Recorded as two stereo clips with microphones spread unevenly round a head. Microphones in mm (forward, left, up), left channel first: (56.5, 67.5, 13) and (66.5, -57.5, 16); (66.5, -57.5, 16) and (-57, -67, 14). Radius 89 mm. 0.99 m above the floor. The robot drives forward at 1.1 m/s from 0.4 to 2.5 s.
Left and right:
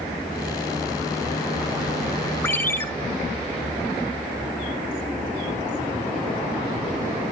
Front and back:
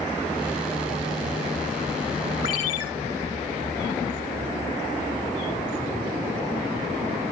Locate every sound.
2.4 s a ringtone: 25° left, 2.5 m